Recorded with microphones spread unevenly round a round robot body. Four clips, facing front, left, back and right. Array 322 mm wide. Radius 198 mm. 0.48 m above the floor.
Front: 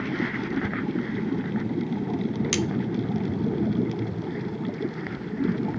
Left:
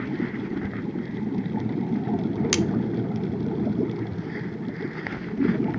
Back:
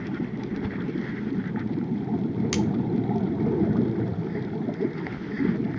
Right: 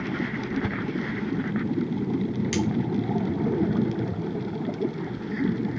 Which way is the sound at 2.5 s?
65° left.